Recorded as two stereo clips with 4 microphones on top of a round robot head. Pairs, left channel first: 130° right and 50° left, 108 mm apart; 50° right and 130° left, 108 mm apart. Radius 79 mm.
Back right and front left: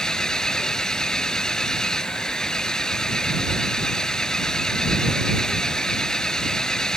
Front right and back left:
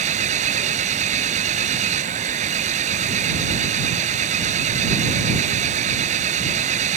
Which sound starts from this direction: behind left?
An engine running, at 0.0 s.